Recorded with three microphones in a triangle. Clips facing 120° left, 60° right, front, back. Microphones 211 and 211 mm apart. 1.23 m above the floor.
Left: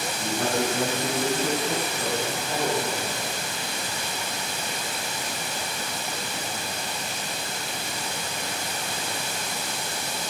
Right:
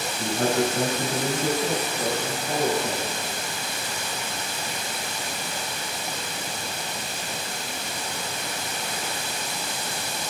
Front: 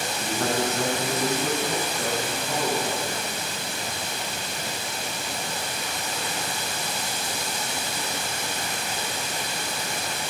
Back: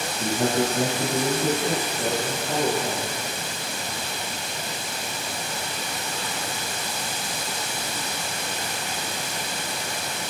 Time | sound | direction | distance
0.2 | a man speaking | 120° right | 7 m